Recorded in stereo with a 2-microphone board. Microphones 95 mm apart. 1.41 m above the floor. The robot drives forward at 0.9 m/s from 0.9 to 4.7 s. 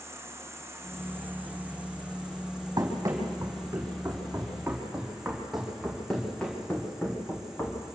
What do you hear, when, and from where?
0.0 s an insect: 30° right (ahead or behind), 0.9 m; by 8.0 s 5° right (ahead or behind), 4 m
2.8 s running footsteps: 40° right (ahead or behind), 3 m; by 7.8 s 25° left (ahead or behind), 3.5 m